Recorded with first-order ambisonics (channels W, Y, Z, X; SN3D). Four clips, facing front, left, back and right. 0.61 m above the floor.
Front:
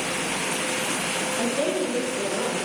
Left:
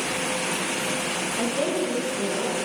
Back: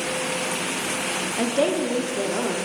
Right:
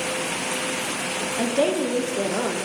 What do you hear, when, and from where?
1.4 s a woman speaking: 155° right, 0.6 m; by 2.6 s 120° right, 1.0 m